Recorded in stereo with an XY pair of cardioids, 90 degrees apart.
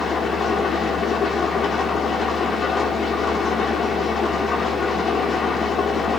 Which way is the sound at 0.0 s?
60° left.